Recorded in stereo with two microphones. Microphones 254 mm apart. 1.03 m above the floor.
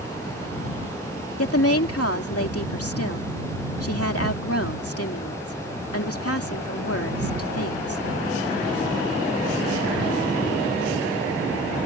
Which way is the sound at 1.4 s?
65° left (ahead or behind).